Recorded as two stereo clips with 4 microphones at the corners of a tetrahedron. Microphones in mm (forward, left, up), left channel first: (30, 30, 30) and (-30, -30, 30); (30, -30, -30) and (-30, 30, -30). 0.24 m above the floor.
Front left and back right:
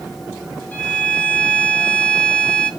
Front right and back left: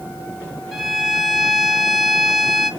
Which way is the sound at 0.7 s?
55° left.